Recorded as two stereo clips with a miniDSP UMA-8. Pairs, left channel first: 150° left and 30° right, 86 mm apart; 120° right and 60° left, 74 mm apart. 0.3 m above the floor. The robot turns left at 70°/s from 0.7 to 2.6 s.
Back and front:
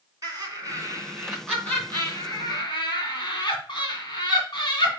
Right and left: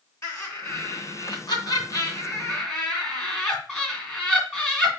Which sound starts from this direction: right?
Laughter, at 0.2 s.